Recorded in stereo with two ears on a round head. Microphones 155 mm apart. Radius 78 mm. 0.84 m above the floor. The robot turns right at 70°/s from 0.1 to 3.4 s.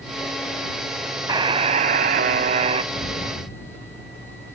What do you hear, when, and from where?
1.3 s a buzzer: 150° right; by 2.8 s 45° right
2.9 s an explosion: 60° left; by 4.1 s 90° left